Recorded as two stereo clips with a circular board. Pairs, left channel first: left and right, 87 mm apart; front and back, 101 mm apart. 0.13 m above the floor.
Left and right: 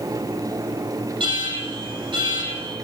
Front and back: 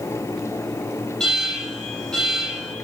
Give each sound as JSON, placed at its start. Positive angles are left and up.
{"t": 1.2, "sound": "an alarm", "azimuth_deg": -85, "distance_m": 8.0}